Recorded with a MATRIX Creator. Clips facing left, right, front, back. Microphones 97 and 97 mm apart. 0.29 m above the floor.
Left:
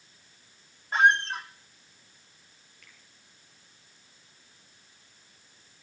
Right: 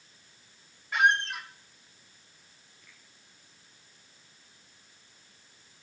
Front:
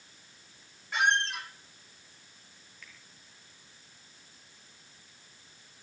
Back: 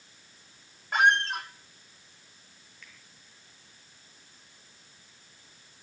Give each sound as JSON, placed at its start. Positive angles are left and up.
{"t": 0.9, "sound": "a squeak", "azimuth_deg": 145, "distance_m": 1.4}
{"t": 2.8, "sound": "a finger snap", "azimuth_deg": 90, "distance_m": 5.5}